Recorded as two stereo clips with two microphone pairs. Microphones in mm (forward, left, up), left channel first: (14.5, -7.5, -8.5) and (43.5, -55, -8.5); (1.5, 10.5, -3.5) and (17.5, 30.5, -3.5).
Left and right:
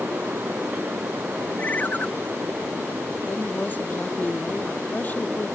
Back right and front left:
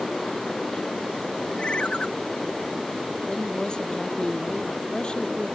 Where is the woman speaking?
Straight behind.